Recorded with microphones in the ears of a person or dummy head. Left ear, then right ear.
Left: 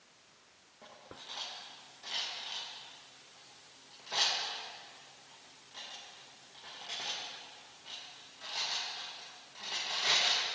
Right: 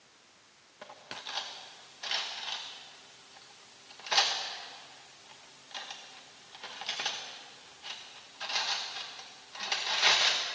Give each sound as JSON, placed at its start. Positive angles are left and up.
{"t": 0.8, "sound": "cutlery clinking", "side_deg": -50, "distance_m": 0.9}